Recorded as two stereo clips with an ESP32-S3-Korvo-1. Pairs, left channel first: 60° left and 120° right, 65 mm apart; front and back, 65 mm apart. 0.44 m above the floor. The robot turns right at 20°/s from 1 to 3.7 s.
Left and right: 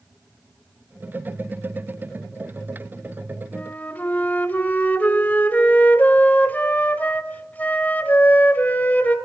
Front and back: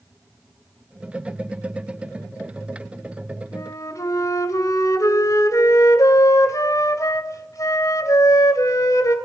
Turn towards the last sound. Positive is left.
turn(degrees=0)